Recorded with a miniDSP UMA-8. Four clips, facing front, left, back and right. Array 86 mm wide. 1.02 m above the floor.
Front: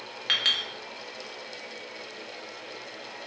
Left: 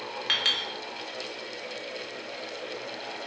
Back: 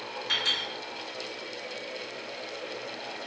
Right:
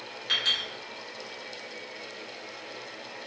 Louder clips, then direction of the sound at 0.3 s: Even, front 2 dB; 40° left.